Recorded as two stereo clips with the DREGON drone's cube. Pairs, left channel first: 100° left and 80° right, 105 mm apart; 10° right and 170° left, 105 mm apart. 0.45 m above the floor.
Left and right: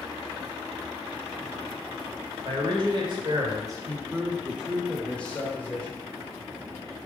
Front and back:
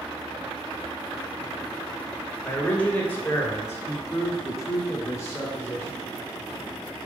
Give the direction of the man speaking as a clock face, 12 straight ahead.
3 o'clock.